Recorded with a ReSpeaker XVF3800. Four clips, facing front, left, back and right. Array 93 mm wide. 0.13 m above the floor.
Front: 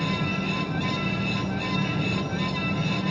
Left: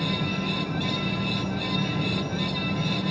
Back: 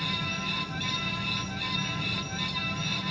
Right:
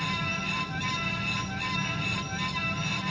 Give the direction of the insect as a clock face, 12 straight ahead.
10 o'clock.